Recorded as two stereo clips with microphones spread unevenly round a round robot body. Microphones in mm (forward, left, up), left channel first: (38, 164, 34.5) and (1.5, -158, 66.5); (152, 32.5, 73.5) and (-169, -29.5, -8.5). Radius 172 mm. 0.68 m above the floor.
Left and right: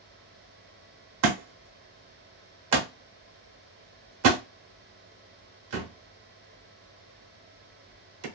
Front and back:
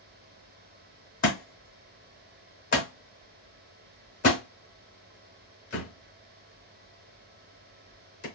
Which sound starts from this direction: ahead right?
A thud, at 1.2 s.